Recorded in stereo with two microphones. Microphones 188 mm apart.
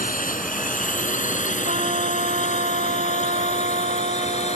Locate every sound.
0.0 s a drone: 45° left (ahead or behind); by 4.6 s 35° left (ahead or behind)
1.6 s a trumpet: 40° right (ahead or behind)